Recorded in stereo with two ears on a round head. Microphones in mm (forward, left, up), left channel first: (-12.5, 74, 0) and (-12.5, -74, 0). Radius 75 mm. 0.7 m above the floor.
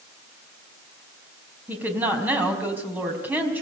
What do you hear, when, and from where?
1.7 s a woman speaking: 10° right (ahead or behind), 5 m